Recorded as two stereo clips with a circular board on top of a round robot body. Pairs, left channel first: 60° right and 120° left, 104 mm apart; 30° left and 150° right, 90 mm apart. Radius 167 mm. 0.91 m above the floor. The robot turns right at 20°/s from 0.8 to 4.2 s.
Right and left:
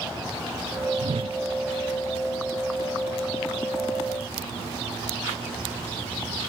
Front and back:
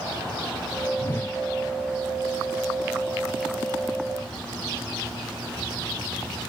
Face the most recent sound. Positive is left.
turn(degrees=155)